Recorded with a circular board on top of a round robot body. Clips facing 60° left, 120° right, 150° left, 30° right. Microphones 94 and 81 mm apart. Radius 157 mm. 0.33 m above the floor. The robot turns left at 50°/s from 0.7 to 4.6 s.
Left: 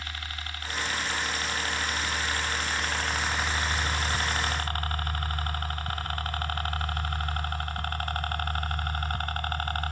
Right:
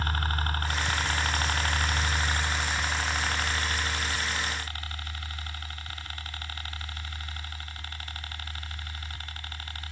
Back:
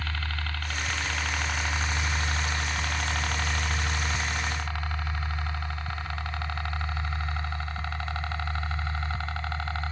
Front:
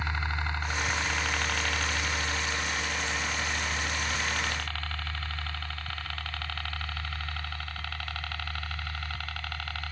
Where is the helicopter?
95° right; by 9.9 s 85° left.